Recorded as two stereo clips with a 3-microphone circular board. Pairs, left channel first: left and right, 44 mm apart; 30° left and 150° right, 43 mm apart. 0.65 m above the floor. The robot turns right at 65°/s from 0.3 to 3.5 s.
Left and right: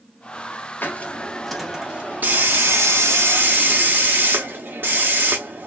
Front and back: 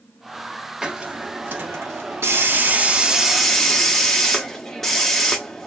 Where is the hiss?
130° left, 0.7 m; by 5.7 s 55° right, 0.7 m.